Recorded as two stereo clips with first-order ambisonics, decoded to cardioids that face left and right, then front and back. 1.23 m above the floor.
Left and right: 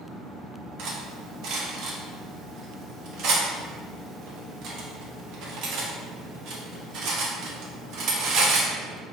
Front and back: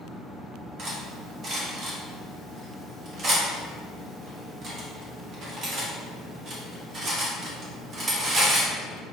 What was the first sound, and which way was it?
Cutlery clinking, 125° right.